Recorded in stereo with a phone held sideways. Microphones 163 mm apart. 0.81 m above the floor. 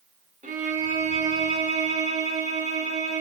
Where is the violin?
50° right (ahead or behind), 0.7 m.